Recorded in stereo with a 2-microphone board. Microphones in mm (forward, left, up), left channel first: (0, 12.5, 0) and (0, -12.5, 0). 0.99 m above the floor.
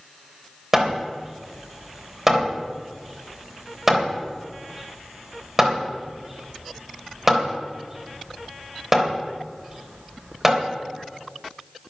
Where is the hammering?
15° right (ahead or behind), 3 m.